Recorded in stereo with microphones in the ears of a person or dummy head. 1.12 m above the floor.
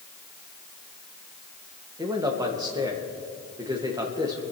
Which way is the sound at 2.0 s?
20° right (ahead or behind).